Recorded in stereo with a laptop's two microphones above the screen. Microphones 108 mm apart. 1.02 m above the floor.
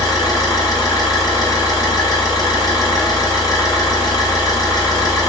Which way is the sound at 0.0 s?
35° left (ahead or behind).